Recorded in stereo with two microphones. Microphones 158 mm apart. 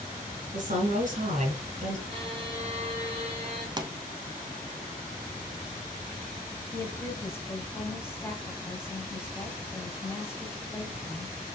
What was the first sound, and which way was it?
A woman speaking, 55° right (ahead or behind).